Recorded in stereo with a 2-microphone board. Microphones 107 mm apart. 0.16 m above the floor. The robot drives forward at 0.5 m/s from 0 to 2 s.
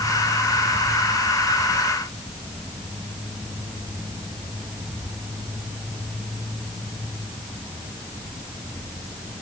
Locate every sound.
Only background noise.